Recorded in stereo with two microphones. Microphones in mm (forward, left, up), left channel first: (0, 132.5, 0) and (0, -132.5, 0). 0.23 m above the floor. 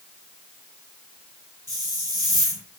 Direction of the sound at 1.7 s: 55° left (ahead or behind).